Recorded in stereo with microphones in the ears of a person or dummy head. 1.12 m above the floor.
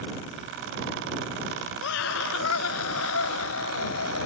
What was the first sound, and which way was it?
A scream, 80° left.